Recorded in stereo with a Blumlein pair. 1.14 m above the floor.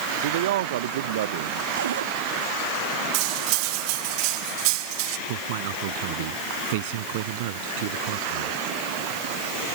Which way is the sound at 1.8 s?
65° right.